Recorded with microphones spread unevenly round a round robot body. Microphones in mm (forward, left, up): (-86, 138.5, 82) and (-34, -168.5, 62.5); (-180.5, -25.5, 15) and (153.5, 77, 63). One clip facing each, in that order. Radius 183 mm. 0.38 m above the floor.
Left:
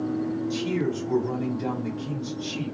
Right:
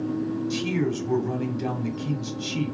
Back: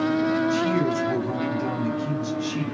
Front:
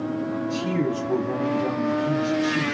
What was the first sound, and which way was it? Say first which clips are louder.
A man speaking: right 1 dB, back 2 dB; 105° right.